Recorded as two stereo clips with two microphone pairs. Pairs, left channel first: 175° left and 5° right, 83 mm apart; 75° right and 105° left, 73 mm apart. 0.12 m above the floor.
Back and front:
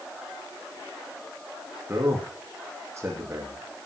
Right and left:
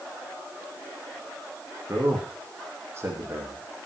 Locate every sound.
1.9 s a man speaking: 50° left, 6.5 m